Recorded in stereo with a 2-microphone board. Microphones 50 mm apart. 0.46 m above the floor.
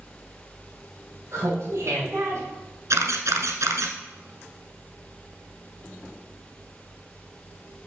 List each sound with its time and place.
1.3 s laughter: 65° right (ahead or behind), 2.5 m
2.9 s a camera shutter: 80° right, 1.0 m